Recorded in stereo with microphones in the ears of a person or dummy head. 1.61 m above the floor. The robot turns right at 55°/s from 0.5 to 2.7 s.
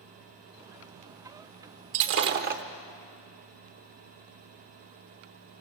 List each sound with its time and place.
1.9 s breaking glass: 85° right, 1.1 m; by 2.6 s 50° right, 1.1 m